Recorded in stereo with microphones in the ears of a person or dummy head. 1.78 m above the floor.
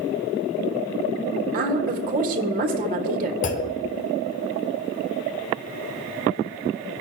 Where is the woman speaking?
45° right (ahead or behind), 1.3 m.